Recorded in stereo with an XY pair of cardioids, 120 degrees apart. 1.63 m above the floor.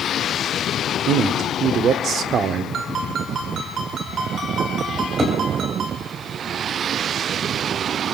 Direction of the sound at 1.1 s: 55° right.